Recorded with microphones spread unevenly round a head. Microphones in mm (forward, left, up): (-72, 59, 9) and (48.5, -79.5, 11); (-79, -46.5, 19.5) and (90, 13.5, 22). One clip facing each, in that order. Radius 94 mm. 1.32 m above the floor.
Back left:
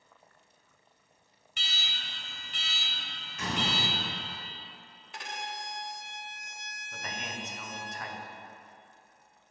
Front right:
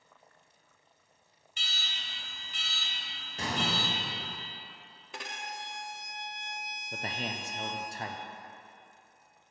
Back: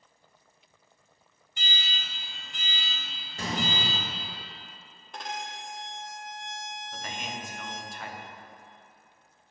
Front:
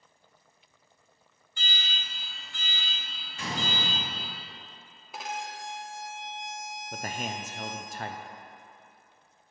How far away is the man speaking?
About 0.5 m.